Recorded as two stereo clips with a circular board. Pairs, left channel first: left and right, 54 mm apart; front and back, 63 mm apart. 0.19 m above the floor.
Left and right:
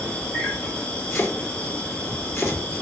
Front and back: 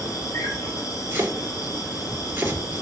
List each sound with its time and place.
0.0 s an insect: 25° left, 5 m
1.1 s chopping: 120° left, 3.5 m